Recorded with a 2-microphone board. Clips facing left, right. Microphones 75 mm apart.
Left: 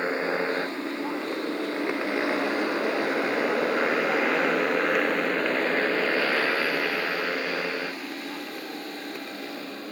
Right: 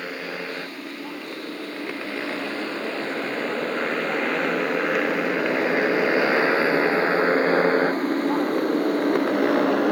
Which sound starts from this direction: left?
A motorcycle, at 0.0 s.